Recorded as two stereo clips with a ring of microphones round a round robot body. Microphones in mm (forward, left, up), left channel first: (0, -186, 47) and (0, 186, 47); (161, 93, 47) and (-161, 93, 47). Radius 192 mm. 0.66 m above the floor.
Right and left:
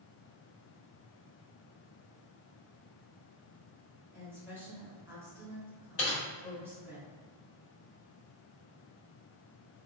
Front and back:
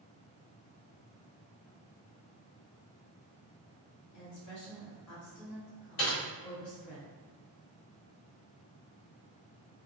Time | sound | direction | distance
4.1 | a woman speaking | 5° left | 1.9 m
6.0 | typing on a keyboard | 35° right | 1.7 m